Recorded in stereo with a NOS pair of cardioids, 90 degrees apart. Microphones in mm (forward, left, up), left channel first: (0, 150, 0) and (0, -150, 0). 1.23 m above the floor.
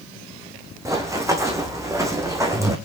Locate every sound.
0.8 s running footsteps: 10° right, 4 m